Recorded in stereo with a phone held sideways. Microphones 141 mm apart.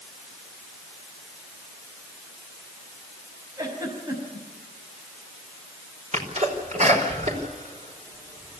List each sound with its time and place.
3.6 s a giggle: 25° right (ahead or behind), 5.5 m
6.1 s a sneeze: 60° right (ahead or behind), 5 m